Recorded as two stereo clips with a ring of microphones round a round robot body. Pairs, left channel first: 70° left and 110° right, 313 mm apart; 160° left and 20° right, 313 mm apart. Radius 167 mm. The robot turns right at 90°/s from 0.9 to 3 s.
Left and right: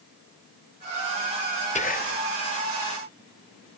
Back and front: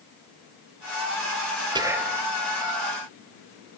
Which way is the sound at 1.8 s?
35° left.